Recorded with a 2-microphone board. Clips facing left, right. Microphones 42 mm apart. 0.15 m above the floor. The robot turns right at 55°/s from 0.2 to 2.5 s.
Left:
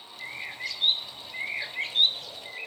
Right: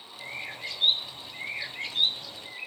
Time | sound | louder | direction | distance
0.2 | a bird | left 1 dB | 55° right | 0.8 m